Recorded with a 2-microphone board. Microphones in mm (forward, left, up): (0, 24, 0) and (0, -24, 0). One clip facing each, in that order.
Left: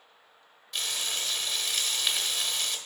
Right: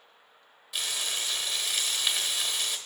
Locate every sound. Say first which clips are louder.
0.7 s frying: even; 5° right (ahead or behind), 1.3 m